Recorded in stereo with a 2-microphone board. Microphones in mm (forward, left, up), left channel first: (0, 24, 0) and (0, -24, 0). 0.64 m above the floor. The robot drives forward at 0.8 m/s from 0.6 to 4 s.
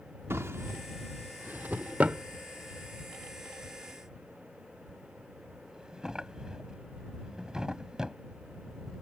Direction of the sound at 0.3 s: 65° right (ahead or behind).